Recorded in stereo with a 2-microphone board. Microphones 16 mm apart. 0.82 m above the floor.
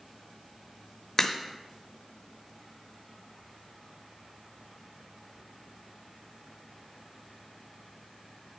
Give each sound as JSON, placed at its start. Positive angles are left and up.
{"t": 1.2, "sound": "a crack", "side_deg": 35, "distance_m": 0.8}